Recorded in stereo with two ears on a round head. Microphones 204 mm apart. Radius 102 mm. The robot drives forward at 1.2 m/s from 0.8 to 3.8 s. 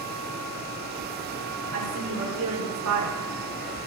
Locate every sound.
1.7 s a woman speaking: 75° right (ahead or behind), 7 m; by 3.3 s 90° right, 7 m